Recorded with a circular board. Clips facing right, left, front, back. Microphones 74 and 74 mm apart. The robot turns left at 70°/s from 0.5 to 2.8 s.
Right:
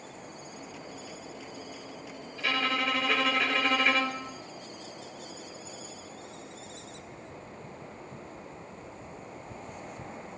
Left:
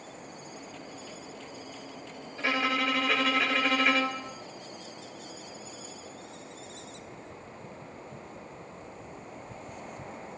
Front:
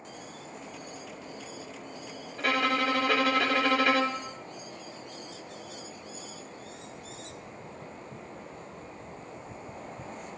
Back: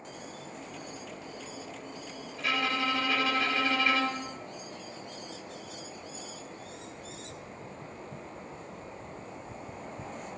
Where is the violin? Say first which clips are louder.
Left 1 dB, front 4 dB; 30° left, 0.6 m; by 4.3 s straight ahead, 0.6 m.